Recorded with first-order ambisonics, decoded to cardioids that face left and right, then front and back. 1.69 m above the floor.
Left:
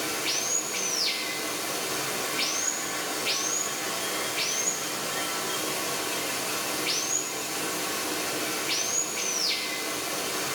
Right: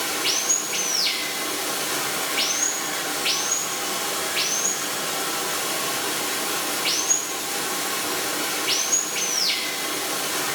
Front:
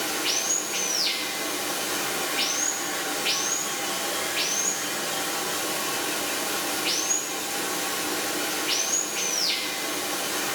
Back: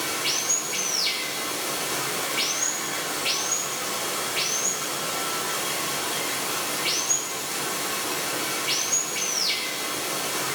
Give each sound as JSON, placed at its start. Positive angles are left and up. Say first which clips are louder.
{"t": 0.0, "sound": "running water", "louder": "right 5 dB, even", "azimuth_deg": -100, "distance_m": 1.3}